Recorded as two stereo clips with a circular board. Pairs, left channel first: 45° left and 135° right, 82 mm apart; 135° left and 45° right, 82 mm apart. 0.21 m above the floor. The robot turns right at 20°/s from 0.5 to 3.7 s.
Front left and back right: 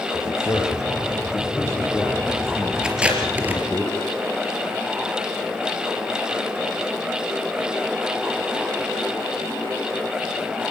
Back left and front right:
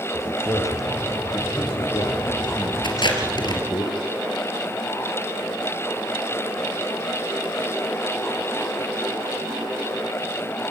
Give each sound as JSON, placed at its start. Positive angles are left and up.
{"t": 0.1, "sound": "a man speaking", "azimuth_deg": 85, "distance_m": 4.0}
{"t": 2.8, "sound": "tape being pulled", "azimuth_deg": 145, "distance_m": 4.0}